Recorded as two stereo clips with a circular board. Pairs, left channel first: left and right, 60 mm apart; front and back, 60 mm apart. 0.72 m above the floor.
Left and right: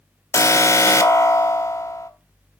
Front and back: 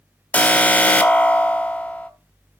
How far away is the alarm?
About 1.1 m.